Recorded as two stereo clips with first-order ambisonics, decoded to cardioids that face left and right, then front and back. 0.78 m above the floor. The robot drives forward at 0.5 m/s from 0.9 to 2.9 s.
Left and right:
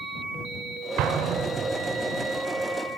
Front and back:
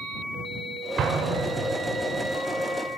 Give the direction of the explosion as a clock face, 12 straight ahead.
4 o'clock.